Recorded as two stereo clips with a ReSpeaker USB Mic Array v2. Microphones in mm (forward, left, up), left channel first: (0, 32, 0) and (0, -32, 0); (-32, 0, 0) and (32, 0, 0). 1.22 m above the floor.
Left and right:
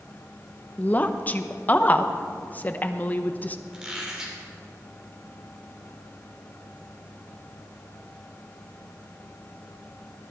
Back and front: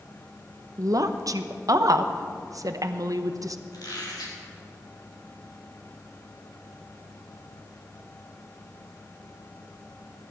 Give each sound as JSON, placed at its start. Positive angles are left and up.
{"t": 0.8, "sound": "a woman speaking", "azimuth_deg": 30, "distance_m": 0.8}
{"t": 3.7, "sound": "a squeak", "azimuth_deg": -170, "distance_m": 3.0}